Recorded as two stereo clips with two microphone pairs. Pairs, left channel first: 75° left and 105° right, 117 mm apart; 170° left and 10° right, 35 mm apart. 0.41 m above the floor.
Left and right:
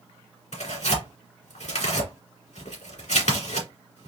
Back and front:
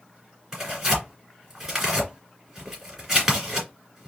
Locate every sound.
0.5 s tearing paper: 70° left, 2 m